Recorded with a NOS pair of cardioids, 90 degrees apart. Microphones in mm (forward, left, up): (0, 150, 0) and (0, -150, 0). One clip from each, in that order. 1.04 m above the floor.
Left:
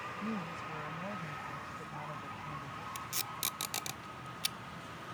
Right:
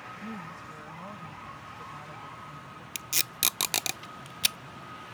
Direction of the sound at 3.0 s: 65° right.